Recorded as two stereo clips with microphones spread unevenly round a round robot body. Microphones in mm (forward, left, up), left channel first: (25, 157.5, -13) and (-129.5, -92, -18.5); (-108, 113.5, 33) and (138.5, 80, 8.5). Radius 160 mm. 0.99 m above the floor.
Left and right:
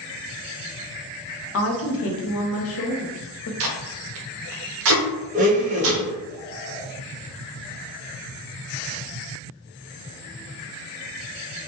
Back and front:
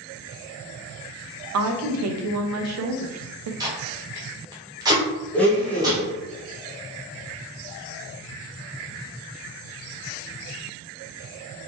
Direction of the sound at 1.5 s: 5° left.